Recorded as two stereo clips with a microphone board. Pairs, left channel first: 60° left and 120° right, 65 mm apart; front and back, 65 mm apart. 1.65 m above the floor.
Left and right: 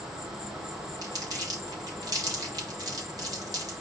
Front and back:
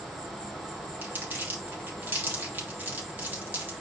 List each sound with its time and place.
0.0 s an insect: 115° right, 2.5 m
1.0 s crumpling: 120° right, 3 m